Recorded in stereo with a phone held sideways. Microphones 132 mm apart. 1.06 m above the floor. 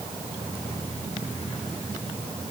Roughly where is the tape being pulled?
I don't hear tape being pulled.